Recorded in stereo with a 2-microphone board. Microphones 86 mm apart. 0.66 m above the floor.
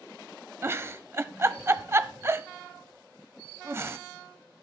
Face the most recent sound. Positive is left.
turn(degrees=-30)  # may be behind; listen again after turning